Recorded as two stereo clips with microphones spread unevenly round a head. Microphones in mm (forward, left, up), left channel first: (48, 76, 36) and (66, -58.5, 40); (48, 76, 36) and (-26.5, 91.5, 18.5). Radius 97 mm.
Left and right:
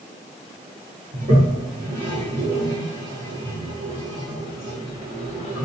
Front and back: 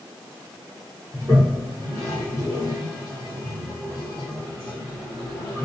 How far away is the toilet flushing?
About 1.1 m.